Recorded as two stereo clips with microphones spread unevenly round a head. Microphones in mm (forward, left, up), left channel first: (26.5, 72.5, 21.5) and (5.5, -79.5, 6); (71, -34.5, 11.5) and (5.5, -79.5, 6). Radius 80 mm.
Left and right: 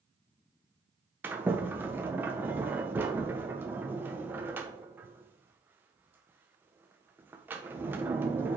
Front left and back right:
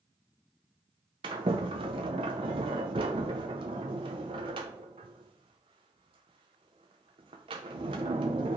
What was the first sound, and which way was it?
A sliding door, straight behind.